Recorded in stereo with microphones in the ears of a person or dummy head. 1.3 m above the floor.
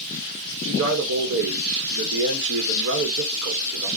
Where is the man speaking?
55° right (ahead or behind), 0.9 m.